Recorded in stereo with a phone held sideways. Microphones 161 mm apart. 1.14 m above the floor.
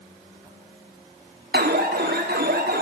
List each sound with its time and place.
1.5 s an alarm: 85° right, 2.0 m